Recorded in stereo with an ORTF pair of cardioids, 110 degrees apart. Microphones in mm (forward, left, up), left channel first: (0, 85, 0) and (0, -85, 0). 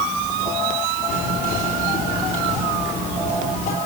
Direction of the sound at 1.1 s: 60° left.